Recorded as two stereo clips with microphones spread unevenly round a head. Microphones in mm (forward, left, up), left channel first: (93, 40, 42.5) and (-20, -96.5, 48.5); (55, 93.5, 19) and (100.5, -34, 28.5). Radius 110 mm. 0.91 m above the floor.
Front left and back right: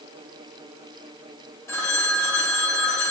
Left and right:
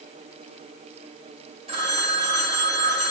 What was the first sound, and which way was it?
A phone ringing, 25° right.